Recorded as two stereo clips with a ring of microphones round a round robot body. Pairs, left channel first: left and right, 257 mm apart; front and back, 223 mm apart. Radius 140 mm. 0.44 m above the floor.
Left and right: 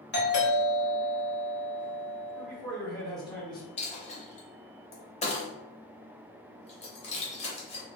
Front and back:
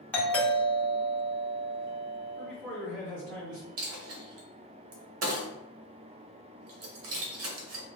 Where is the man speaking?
165° left, 1.9 m.